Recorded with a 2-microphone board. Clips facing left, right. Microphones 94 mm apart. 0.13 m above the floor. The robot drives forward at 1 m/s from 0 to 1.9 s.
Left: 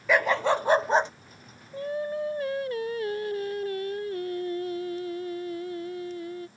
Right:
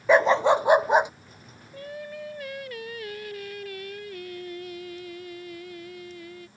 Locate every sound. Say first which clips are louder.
0.1 s a dog barking: right 5 dB; 30° right (ahead or behind); by 1.1 s 10° right (ahead or behind)
1.7 s singing: left 7 dB; 25° left (ahead or behind); by 6.5 s 35° left (ahead or behind)